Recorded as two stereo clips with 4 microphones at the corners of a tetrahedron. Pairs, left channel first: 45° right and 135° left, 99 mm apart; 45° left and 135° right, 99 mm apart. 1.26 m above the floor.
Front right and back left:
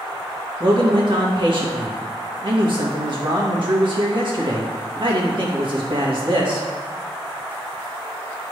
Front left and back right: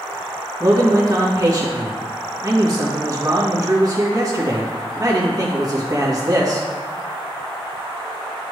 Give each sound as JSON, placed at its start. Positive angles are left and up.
{"t": 0.6, "sound": "a man speaking", "azimuth_deg": 170, "distance_m": 1.8}